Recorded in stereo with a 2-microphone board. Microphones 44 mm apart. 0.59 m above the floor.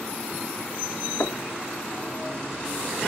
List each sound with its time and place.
1.2 s knocking: 55° left (ahead or behind), 0.8 m